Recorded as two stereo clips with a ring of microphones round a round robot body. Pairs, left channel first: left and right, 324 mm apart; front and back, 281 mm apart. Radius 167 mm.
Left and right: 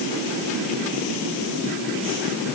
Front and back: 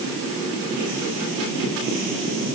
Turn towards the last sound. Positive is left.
No sound to turn to.